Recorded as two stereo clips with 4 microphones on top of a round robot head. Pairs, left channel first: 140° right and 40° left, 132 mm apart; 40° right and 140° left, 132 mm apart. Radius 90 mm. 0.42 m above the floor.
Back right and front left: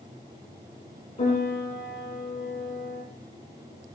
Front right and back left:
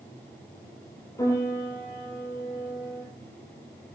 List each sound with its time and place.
1.2 s a piano: 105° right, 5.5 m